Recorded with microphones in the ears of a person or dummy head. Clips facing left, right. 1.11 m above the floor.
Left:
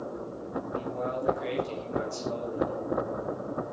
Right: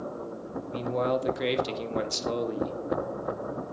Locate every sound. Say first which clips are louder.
0.7 s a man speaking: right 7 dB; 75° right (ahead or behind), 2 m